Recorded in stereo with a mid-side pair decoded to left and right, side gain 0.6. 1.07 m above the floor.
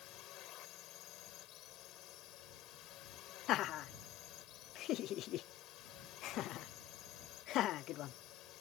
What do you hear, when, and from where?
0.0 s a drone: 60° left
3.5 s laughter: 60° left